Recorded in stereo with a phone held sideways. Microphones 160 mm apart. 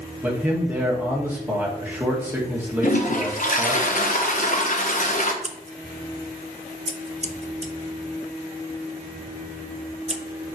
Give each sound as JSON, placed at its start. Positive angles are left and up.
{"t": 0.2, "sound": "a man speaking", "side_deg": -10, "distance_m": 2.0}
{"t": 2.8, "sound": "a toilet flushing", "side_deg": 50, "distance_m": 0.8}
{"t": 5.4, "sound": "scissors", "side_deg": -40, "distance_m": 0.6}